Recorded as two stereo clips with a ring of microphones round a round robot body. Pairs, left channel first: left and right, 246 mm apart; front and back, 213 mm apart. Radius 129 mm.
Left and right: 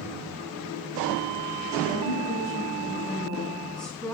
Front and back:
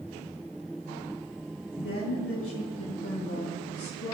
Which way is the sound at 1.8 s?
15° left.